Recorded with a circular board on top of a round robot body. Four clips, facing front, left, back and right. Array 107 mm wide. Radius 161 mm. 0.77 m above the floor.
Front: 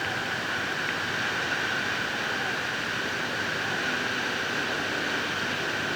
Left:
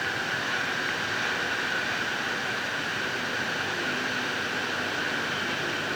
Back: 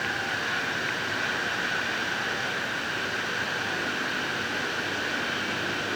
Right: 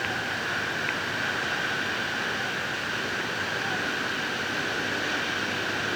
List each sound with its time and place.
Only background noise.